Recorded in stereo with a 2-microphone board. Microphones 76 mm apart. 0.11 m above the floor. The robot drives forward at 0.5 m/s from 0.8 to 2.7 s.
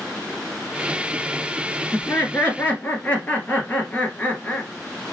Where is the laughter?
25° left (ahead or behind), 1.4 m.